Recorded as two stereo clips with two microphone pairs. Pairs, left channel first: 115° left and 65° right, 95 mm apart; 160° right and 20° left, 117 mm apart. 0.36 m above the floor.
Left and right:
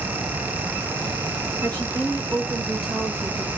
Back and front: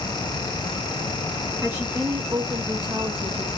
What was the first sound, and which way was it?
A woman speaking, 55° right.